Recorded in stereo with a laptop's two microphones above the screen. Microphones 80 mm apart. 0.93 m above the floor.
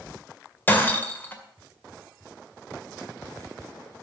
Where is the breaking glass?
25° left (ahead or behind), 2.0 m.